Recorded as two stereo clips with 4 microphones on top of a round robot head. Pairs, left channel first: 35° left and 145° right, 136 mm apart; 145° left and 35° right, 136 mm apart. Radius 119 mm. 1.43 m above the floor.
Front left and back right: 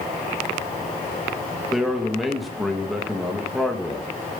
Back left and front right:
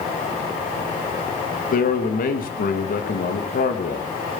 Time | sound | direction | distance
1.7 | a man speaking | 125° left | 2 m